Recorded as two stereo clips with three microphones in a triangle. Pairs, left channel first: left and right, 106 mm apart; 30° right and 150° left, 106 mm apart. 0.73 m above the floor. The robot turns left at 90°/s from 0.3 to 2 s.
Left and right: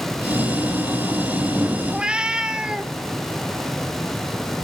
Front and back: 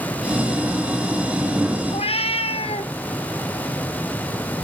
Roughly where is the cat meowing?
Ahead.